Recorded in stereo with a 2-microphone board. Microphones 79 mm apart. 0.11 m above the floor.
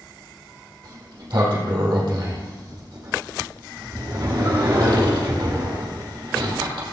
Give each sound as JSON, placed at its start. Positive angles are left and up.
{"t": 0.8, "sound": "a sliding door", "side_deg": -55, "distance_m": 4.0}